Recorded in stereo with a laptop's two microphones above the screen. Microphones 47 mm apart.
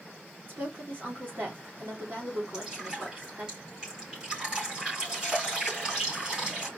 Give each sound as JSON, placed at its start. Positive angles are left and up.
{"t": 0.5, "sound": "a woman speaking", "side_deg": -45, "distance_m": 2.0}
{"t": 2.5, "sound": "dripping", "side_deg": -20, "distance_m": 3.0}